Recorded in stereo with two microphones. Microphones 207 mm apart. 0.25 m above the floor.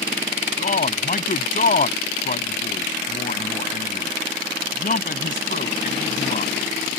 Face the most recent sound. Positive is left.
turn(degrees=45)  # may be behind; listen again after turning